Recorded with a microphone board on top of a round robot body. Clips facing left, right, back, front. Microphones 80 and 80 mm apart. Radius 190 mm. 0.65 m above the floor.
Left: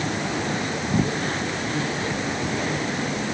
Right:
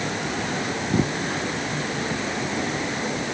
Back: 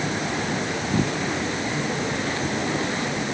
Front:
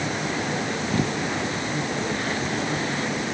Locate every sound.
Only background noise.